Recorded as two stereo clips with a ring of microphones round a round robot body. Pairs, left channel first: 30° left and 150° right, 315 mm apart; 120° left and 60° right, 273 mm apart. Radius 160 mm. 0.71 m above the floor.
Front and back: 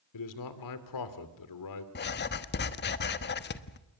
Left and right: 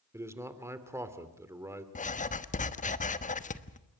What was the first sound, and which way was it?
A man speaking, 20° left.